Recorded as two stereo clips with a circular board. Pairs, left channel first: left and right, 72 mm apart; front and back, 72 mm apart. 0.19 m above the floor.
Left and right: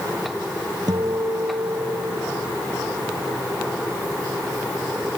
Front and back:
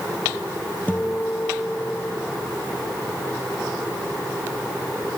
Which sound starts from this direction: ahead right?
A guitar, at 0.9 s.